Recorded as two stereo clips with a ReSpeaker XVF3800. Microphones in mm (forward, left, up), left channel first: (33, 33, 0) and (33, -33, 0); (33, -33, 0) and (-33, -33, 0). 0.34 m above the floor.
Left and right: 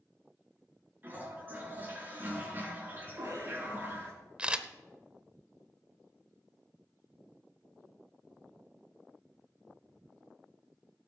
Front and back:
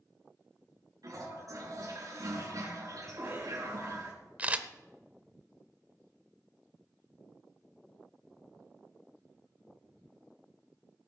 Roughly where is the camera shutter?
Behind right.